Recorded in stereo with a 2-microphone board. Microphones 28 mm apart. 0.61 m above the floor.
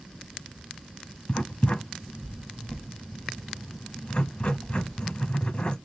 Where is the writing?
45° left (ahead or behind), 1.0 m.